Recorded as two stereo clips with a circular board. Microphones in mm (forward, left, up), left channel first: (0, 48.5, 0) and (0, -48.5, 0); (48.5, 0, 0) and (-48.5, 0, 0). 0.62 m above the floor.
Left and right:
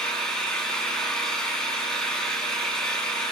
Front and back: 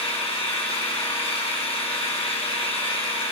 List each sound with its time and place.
0.0 s an engine running: 10° left, 5 m